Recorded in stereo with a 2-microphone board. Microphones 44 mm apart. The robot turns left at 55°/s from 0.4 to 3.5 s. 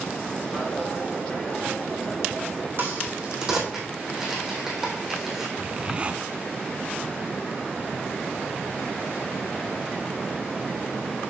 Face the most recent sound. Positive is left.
turn(degrees=-25)  # may be behind; listen again after turning